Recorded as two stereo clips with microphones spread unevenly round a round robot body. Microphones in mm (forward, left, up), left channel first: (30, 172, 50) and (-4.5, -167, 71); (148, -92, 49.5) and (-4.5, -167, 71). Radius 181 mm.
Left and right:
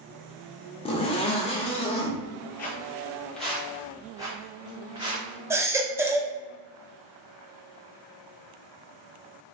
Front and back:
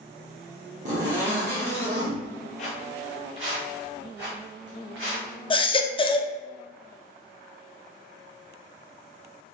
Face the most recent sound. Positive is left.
turn(degrees=-10)